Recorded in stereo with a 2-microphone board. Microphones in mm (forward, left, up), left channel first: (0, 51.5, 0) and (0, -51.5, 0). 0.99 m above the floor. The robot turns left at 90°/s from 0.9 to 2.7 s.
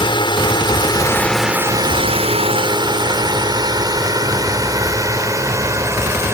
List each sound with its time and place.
0.0 s a drone: 50° left (ahead or behind); by 6.3 s 25° right (ahead or behind)